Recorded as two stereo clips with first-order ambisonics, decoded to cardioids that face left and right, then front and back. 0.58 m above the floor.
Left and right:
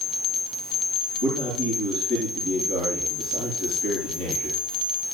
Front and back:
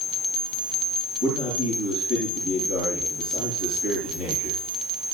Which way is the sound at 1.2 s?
165° right.